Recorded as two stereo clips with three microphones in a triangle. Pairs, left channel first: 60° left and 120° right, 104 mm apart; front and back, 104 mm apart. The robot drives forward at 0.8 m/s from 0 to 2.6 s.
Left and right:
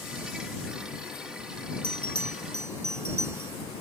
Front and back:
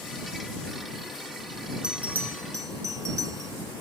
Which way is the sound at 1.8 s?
100° right.